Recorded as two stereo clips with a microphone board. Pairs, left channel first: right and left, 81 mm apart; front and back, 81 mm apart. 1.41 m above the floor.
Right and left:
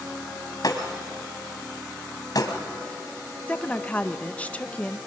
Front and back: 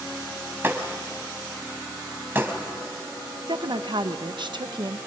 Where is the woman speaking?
165° right, 1.0 m.